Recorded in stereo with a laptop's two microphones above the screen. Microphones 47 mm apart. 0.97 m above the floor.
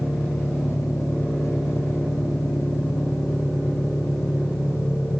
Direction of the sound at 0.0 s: 85° left.